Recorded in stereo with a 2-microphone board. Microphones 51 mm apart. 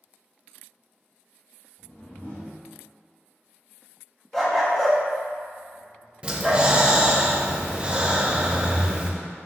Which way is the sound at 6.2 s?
25° right (ahead or behind).